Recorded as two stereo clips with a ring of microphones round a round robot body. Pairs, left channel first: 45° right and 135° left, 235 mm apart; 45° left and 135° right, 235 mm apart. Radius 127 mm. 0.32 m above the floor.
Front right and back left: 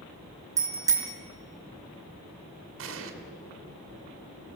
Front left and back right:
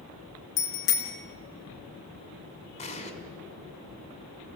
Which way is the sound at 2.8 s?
105° left.